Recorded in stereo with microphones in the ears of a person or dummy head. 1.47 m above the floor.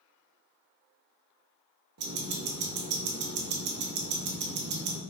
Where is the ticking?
40° right (ahead or behind), 0.8 m.